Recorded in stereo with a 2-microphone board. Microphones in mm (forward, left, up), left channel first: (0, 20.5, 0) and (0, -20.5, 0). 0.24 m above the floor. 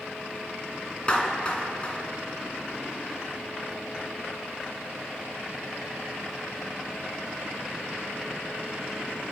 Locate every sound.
1.1 s a clap: 25° left (ahead or behind), 2.5 m